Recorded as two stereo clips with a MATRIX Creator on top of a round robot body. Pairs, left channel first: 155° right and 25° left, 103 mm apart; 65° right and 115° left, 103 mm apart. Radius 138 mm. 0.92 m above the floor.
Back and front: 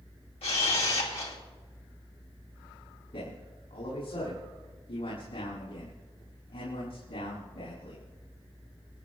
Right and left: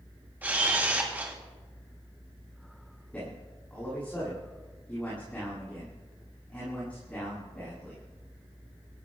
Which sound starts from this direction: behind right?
A man speaking, at 3.1 s.